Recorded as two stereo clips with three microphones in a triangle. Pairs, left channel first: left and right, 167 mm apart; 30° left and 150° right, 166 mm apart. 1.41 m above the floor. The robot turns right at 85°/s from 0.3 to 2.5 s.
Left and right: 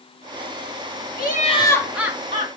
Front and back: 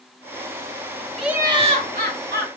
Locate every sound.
1.2 s laughter: 120° left, 2.5 m; by 2.5 s 130° right, 2.5 m